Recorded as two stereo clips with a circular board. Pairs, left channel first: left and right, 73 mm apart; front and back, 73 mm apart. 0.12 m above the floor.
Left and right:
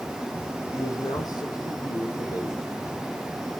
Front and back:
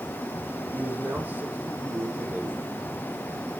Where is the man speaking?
115° left, 5.5 m.